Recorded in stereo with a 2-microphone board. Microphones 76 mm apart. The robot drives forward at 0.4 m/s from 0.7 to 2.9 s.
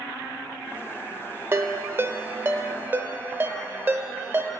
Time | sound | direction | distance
1.5 | a ringtone | 30° right (ahead or behind) | 0.7 m